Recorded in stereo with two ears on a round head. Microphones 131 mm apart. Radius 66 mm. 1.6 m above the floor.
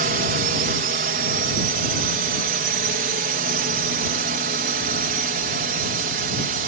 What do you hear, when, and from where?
0.0 s a drone: 65° right (ahead or behind)